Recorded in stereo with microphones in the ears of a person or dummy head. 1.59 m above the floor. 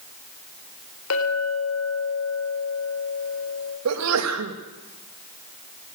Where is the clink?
75° left (ahead or behind), 3.5 m.